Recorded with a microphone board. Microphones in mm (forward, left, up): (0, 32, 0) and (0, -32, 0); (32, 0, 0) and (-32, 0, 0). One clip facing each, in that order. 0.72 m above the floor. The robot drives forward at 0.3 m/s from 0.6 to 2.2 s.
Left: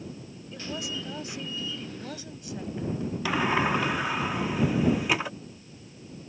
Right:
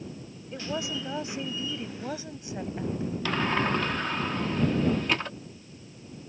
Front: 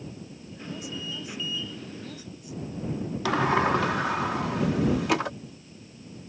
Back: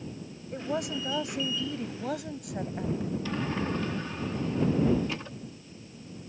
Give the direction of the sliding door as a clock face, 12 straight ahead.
12 o'clock.